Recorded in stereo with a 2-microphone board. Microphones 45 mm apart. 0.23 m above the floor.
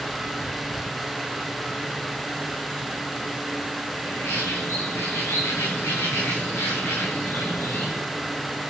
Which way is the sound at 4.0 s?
75° left (ahead or behind).